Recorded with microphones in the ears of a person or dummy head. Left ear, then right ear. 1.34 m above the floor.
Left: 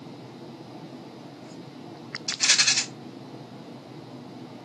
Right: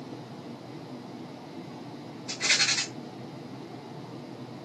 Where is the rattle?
75° left (ahead or behind), 1.7 m.